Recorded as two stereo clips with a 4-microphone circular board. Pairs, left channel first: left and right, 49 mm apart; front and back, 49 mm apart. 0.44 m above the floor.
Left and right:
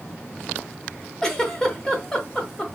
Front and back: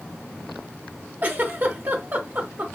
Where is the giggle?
160° left, 0.8 m.